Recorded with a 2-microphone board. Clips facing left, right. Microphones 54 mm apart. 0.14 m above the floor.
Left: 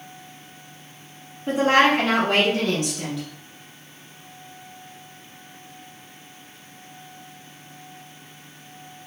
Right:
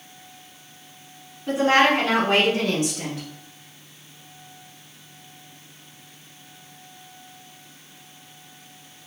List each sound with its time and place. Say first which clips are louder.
1.5 s a woman speaking: left 1 dB; 25° left (ahead or behind), 1.2 m; by 3.2 s 30° right (ahead or behind), 1.3 m